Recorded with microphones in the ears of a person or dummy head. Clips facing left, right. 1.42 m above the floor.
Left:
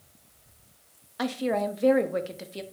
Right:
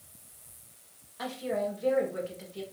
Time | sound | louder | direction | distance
1.2 | a woman speaking | left 5 dB | 65° left (ahead or behind) | 0.6 m